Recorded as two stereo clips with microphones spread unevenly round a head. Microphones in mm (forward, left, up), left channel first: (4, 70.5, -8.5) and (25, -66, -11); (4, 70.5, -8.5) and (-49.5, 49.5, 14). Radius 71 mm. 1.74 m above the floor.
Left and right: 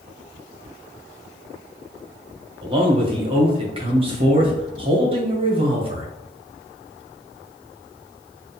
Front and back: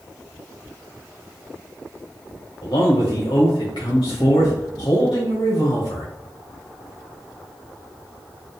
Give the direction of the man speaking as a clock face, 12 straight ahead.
1 o'clock.